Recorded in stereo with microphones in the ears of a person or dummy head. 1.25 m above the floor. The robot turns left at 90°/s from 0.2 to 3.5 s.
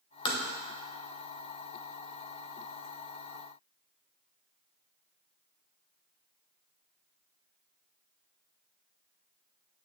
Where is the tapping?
25° left (ahead or behind), 0.9 m; by 0.4 s 15° left (ahead or behind), 0.9 m.